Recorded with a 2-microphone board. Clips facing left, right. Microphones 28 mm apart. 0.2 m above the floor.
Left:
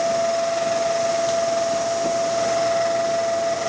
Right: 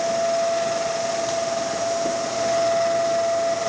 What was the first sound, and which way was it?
Only background noise.